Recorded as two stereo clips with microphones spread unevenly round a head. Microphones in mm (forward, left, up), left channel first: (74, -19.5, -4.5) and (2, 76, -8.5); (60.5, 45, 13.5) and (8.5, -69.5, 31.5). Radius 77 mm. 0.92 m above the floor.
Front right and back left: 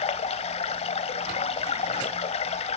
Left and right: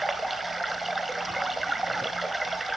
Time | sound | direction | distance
0.0 | running water | 30° right | 1.2 m